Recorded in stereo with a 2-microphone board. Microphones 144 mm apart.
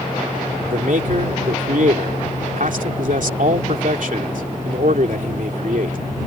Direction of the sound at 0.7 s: 70° right (ahead or behind).